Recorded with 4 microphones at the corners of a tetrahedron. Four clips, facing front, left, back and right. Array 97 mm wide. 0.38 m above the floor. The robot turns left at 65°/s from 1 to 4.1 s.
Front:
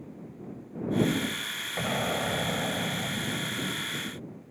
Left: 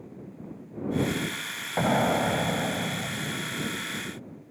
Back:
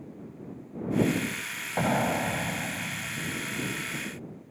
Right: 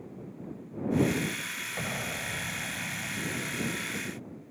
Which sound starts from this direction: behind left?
An explosion, at 1.8 s.